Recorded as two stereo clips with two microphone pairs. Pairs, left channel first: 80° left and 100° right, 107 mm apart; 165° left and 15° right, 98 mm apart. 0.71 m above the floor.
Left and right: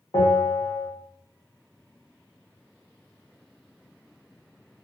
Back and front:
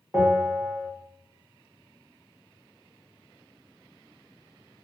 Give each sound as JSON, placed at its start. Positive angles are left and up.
{"t": 0.1, "sound": "a bell", "azimuth_deg": 65, "distance_m": 1.2}